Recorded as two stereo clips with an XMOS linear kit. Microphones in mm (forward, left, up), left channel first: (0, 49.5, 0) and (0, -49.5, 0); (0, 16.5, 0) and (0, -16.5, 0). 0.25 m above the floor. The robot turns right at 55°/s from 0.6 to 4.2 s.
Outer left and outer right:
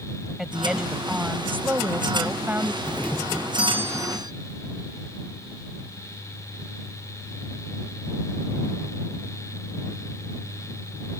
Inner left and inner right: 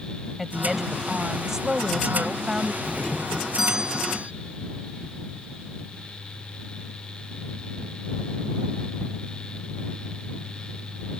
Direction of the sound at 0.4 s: 5° right (ahead or behind).